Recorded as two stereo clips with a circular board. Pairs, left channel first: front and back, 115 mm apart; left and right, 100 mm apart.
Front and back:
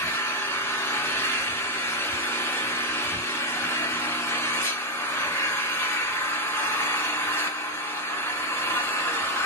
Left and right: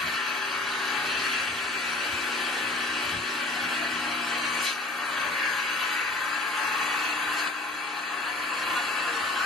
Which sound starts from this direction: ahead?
An engine running, at 0.0 s.